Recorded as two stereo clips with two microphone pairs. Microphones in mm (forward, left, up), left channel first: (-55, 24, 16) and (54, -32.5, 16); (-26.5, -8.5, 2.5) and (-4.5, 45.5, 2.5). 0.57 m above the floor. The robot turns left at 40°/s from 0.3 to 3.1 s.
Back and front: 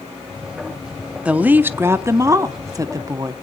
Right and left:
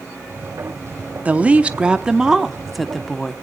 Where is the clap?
I don't hear a clap.